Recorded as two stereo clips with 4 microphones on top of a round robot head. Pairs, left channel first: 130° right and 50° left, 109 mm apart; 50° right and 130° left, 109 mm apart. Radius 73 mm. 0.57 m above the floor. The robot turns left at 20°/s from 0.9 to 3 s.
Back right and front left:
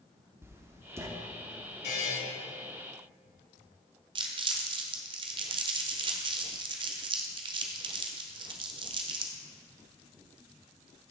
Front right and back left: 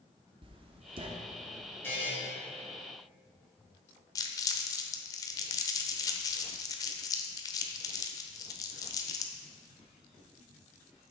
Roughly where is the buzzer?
Behind right.